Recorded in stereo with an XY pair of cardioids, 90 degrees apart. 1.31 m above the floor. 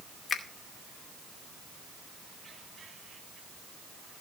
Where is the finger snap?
45° left, 2.5 m.